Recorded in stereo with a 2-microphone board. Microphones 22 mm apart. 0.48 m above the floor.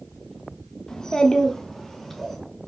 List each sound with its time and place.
0.9 s a child speaking: 25° left (ahead or behind), 0.7 m; by 2.4 s 5° left (ahead or behind), 1.4 m